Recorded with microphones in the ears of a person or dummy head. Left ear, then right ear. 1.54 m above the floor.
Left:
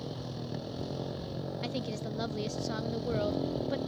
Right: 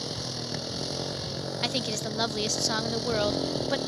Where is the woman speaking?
40° right (ahead or behind).